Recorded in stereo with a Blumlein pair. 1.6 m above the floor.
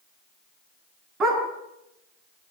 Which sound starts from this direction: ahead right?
A dog barking, at 1.2 s.